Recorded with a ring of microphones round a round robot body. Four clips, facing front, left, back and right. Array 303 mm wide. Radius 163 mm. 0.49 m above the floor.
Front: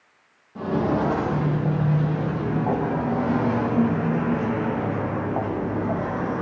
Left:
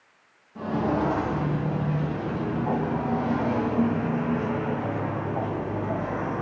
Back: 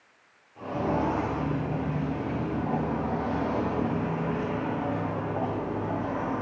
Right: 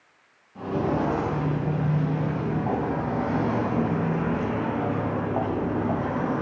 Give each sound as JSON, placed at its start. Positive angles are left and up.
{"t": 0.6, "sound": "footsteps", "azimuth_deg": 5, "distance_m": 5.0}